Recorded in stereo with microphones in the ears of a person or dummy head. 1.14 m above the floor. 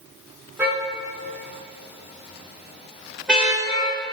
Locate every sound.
0.6 s a car horn: 5° right (ahead or behind), 6 m; by 4.0 s centre (ahead or behind), 7.5 m